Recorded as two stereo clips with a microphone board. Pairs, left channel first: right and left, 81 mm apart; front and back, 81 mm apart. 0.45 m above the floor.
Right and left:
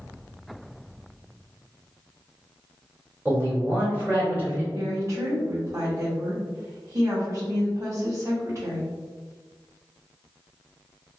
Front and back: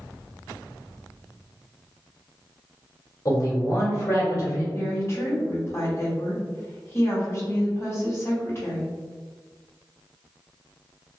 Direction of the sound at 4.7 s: 50° left.